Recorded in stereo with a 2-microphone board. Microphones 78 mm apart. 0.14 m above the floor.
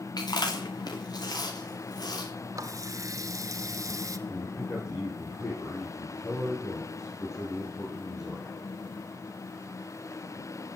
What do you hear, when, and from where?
0.2 s chewing: 60° left (ahead or behind), 5 m
2.5 s a running tap: 45° right (ahead or behind), 1.3 m
4.3 s a man speaking: 35° left (ahead or behind), 6 m